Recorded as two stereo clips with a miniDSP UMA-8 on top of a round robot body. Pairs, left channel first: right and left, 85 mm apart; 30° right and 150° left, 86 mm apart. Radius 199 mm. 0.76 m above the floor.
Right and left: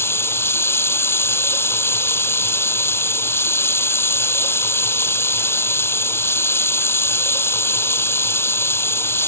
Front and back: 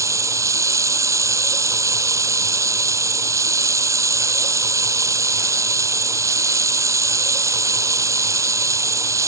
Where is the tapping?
I don't hear tapping.